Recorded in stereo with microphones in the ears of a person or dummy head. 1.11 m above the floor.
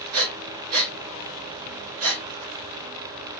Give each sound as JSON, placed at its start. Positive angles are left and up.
{"t": 0.1, "sound": "breathing", "side_deg": -70, "distance_m": 0.6}